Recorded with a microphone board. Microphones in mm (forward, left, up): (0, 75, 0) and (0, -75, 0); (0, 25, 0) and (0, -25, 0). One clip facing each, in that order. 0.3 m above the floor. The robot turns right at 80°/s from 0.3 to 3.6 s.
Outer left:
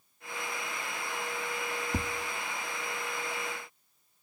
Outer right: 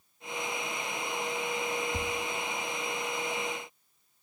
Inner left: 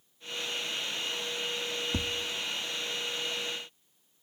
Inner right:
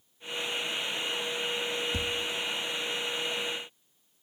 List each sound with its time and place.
1.9 s tapping: 40° left (ahead or behind), 0.7 m; by 2.1 s 30° left (ahead or behind), 0.7 m